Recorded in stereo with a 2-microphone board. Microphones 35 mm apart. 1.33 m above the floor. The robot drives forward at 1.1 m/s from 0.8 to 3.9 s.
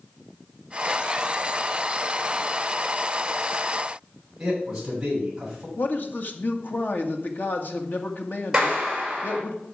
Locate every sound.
4.4 s a man speaking: 10° right (ahead or behind), 8 m
5.8 s a man speaking: 60° left (ahead or behind), 1.8 m
8.5 s a clap: 15° right (ahead or behind), 6 m